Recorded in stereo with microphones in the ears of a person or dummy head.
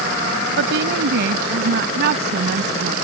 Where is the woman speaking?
70° right (ahead or behind); by 3.0 s 60° right (ahead or behind).